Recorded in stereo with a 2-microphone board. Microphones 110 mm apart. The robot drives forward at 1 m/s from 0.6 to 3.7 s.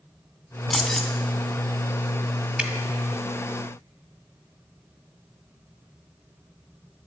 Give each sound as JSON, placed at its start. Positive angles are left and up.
{"t": 0.7, "sound": "keys jangling", "side_deg": 0, "distance_m": 1.8}
{"t": 2.6, "sound": "dripping", "side_deg": -10, "distance_m": 1.7}